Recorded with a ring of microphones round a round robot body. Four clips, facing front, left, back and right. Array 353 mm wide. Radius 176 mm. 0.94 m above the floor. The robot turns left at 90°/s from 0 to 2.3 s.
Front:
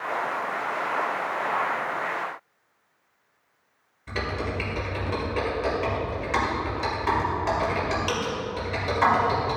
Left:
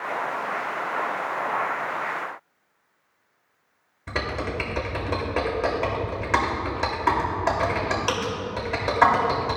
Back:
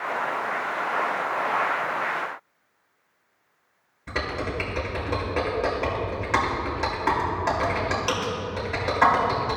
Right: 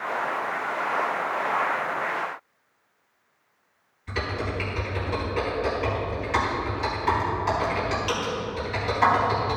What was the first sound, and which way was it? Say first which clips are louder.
Typing on a keyboard: left 1 dB, back 1 dB; 110° left.